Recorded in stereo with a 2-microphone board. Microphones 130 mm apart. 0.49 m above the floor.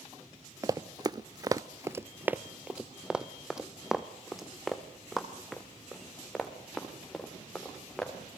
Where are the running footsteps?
25° right (ahead or behind), 0.6 m; by 8.1 s centre (ahead or behind), 4 m.